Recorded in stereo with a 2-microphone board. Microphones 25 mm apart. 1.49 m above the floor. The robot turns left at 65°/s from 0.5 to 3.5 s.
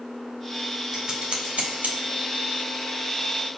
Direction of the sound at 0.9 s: 15° right (ahead or behind).